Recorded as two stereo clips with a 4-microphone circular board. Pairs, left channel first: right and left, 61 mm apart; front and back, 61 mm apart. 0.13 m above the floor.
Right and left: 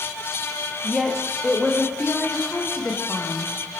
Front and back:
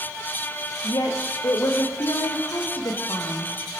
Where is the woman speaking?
Straight ahead, 8 m.